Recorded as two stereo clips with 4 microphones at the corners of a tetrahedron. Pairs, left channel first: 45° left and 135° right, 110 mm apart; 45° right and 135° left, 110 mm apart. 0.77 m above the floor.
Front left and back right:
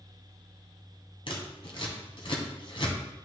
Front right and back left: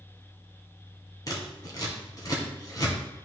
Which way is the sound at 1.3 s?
10° left.